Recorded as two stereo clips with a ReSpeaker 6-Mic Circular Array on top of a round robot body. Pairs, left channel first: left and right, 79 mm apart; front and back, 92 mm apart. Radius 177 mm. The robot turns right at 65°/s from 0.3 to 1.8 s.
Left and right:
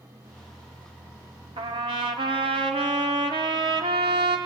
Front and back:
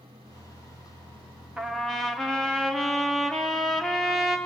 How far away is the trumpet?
About 0.8 m.